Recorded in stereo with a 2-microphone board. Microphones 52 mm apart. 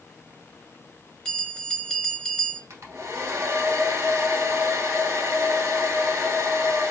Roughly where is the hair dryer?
Right.